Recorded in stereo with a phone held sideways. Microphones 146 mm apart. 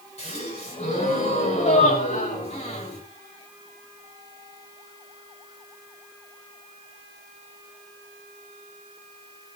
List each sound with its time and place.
0.2 s a gasp: 45° left (ahead or behind), 9.5 m